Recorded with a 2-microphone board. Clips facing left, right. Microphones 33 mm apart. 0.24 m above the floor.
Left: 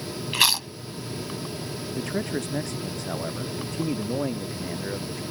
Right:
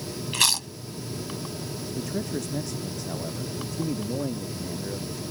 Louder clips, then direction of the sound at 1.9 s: Left 2 dB; 40° left (ahead or behind).